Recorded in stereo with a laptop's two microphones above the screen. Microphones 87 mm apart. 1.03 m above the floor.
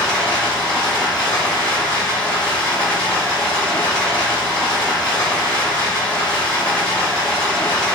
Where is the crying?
No crying in this recording.